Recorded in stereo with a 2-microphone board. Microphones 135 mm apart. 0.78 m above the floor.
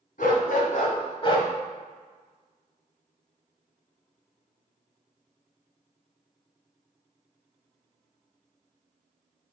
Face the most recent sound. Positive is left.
turn(degrees=25)  # may be behind; listen again after turning